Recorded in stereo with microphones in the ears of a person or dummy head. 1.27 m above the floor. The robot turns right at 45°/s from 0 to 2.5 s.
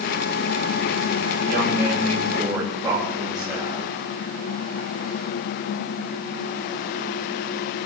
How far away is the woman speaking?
About 8.5 m.